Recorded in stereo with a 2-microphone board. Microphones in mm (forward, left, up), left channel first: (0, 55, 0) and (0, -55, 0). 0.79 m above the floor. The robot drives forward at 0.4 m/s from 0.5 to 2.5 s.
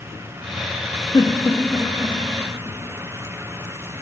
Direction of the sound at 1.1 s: 30° left (ahead or behind).